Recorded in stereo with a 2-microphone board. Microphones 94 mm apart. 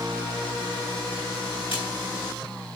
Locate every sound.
1.7 s a splash: 75° left (ahead or behind), 6.5 m